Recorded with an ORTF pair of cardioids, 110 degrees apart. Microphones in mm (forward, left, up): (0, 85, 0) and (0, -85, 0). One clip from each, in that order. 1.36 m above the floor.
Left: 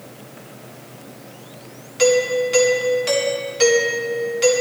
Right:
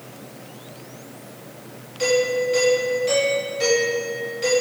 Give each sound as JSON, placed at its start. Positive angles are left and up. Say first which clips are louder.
{"t": 2.0, "sound": "a doorbell", "louder": "left 3 dB", "azimuth_deg": 60, "distance_m": 4.0}